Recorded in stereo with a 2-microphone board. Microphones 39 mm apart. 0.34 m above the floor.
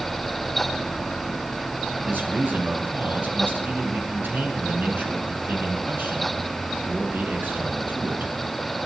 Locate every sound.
2.0 s a man speaking: 65° right (ahead or behind), 5 m